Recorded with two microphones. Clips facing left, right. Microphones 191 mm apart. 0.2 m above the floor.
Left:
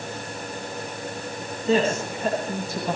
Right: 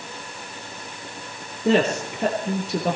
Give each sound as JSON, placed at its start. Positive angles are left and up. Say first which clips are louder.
{"t": 1.6, "sound": "a woman speaking", "louder": "right 2 dB", "side_deg": -70, "distance_m": 4.0}